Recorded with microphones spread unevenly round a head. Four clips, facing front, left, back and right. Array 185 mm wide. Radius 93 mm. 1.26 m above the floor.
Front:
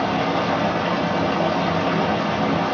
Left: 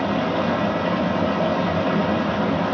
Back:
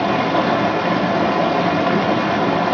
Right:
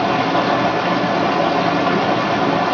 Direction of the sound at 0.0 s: 145° right.